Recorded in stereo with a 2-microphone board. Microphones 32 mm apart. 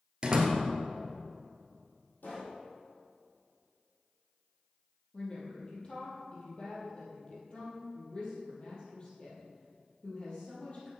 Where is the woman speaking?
35° left (ahead or behind), 3 m.